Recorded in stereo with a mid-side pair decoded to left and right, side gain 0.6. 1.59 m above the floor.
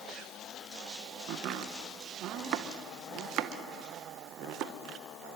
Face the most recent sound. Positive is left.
turn(degrees=-60)